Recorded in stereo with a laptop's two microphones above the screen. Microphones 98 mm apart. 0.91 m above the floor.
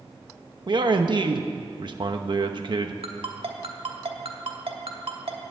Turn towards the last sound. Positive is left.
turn(degrees=-75)  # may be behind; listen again after turning